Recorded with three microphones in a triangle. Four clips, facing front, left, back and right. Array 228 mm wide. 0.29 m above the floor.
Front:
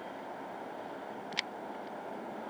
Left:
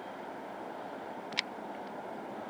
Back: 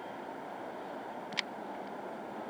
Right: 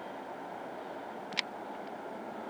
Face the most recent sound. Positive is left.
No sound to turn to.